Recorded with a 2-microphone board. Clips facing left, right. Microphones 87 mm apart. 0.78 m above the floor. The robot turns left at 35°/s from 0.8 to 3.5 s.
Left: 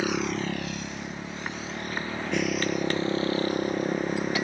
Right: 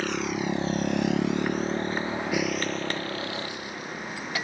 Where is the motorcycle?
10° left (ahead or behind); by 4.5 s 45° left (ahead or behind).